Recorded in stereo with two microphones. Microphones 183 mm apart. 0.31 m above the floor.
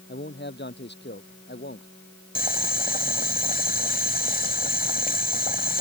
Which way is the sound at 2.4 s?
55° left (ahead or behind).